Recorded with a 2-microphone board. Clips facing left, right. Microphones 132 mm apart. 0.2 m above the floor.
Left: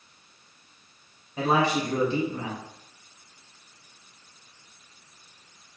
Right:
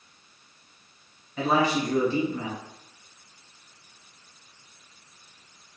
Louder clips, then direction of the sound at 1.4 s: Even; 25° left (ahead or behind).